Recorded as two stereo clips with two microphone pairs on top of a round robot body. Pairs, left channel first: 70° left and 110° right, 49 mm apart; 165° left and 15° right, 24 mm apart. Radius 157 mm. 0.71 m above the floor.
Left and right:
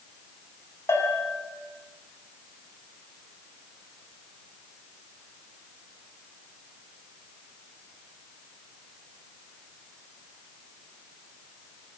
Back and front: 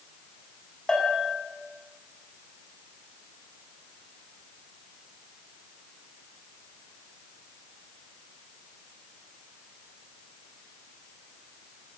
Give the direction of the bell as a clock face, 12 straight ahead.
9 o'clock.